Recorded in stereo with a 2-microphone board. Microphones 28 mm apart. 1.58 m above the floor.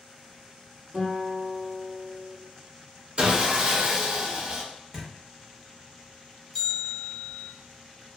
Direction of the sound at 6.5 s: 5° left (ahead or behind).